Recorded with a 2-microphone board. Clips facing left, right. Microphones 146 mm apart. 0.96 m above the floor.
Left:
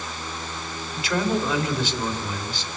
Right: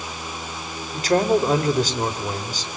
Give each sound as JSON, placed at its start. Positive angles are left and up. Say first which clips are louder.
{"t": 0.9, "sound": "a man speaking", "louder": "right 6 dB", "side_deg": -40, "distance_m": 3.5}